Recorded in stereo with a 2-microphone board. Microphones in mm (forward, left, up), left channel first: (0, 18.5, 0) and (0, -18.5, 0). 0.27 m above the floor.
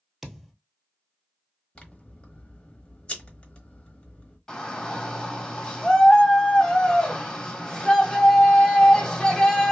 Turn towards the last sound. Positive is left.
turn(degrees=20)  # may be behind; listen again after turning